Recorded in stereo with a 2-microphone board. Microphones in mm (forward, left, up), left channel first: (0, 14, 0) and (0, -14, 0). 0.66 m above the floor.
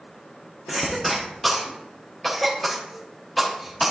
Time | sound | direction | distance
0.7 | a cough | centre (ahead or behind) | 0.8 m